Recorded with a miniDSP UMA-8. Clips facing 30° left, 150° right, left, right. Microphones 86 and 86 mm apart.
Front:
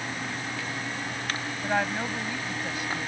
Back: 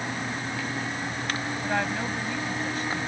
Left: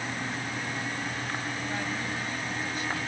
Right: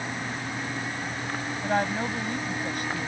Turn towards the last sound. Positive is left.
turn(degrees=-50)